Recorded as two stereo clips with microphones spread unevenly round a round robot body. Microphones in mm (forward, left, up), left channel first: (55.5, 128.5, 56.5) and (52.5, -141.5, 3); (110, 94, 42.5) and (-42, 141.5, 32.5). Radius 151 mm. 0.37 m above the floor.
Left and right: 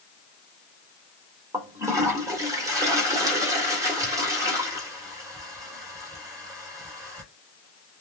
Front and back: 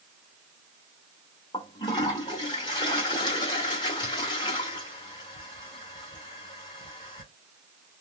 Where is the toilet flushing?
50° right, 1.3 m.